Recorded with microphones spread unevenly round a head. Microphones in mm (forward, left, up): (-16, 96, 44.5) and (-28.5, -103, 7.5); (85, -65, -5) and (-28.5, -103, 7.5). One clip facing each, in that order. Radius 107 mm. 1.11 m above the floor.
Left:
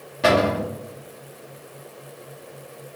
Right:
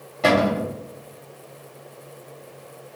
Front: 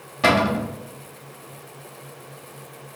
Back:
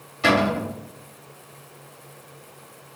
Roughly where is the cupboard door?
Ahead.